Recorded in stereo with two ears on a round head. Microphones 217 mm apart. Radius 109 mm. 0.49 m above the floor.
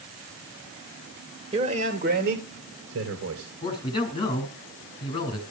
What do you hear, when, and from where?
1.5 s a man speaking: 25° right (ahead or behind), 1.7 m; by 3.5 s 65° right (ahead or behind), 3 m
3.6 s a man speaking: 20° left (ahead or behind), 5.5 m